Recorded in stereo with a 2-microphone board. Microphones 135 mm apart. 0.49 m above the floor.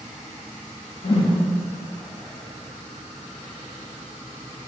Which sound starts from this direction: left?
A whoosh, at 1.0 s.